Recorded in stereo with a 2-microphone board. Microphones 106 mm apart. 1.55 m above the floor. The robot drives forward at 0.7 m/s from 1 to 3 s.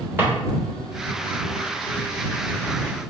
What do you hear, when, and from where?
0.2 s a drawer: 20° right (ahead or behind), 1.3 m